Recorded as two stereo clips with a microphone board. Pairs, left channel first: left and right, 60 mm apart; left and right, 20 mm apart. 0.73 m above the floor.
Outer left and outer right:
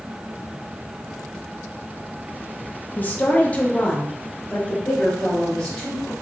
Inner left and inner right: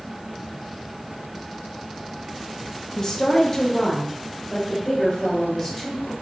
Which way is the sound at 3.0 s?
30° left (ahead or behind).